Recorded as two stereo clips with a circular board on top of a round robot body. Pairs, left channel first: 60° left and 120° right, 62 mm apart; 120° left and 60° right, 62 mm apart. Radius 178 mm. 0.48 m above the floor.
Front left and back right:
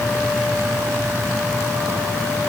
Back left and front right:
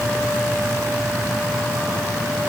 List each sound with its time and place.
Only background noise.